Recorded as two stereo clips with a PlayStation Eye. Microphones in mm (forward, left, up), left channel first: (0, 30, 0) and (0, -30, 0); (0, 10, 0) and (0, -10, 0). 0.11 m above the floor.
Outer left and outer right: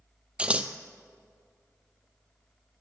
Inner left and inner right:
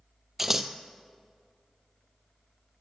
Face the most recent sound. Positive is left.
turn(degrees=-20)  # may be behind; listen again after turning